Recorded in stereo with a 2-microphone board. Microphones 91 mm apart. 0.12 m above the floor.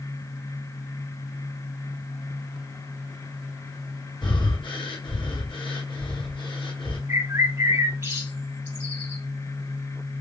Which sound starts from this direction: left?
Breathing, at 4.2 s.